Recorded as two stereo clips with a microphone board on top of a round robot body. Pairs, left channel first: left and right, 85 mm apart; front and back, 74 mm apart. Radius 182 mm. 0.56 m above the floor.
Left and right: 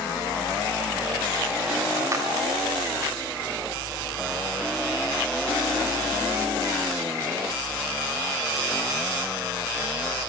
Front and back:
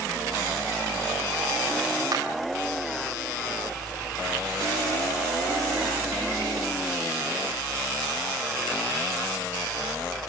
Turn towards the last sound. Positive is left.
turn(degrees=-145)